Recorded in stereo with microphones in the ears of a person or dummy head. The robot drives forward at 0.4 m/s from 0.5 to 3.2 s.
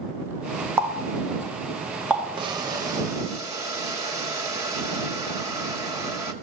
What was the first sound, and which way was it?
A running tap, 10° right (ahead or behind).